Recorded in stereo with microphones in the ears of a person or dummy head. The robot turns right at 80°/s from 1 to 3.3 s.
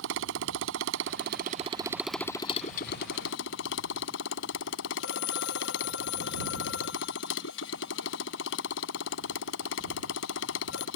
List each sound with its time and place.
0.0 s a motorcycle: 85° right; by 11.0 s 100° left
5.0 s a phone ringing: 70° left (ahead or behind)